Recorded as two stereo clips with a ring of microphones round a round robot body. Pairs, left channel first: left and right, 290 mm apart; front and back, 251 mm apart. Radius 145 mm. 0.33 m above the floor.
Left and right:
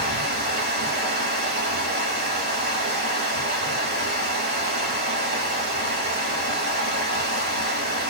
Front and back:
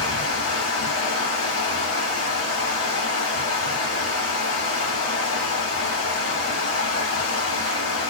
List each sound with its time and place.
0.0 s running water: 35° right, 1.0 m